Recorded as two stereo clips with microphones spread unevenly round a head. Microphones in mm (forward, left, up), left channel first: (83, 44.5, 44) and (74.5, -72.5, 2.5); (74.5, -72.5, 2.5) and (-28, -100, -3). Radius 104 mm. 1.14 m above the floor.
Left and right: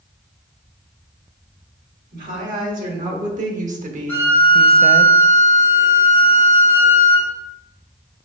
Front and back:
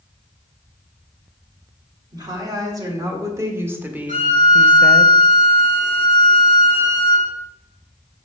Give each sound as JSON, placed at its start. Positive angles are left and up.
{"t": 2.1, "sound": "a woman speaking", "azimuth_deg": -110, "distance_m": 2.5}
{"t": 4.1, "sound": "a violin", "azimuth_deg": 165, "distance_m": 1.6}